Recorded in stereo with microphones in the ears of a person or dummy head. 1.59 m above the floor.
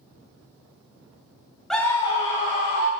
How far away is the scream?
About 0.6 m.